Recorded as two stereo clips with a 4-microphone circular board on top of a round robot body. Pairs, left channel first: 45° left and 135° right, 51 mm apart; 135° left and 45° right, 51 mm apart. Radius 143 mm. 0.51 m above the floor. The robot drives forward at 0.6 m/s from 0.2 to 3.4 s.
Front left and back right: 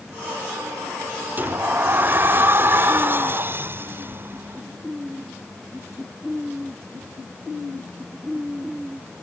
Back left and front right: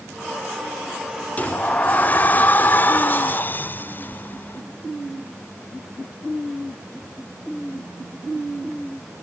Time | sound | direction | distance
1.4 | a sliding door | 170° right | ?